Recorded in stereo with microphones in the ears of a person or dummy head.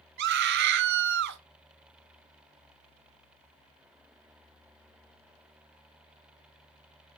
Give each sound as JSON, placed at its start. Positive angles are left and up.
{"t": 0.2, "sound": "a scream", "side_deg": -60, "distance_m": 1.3}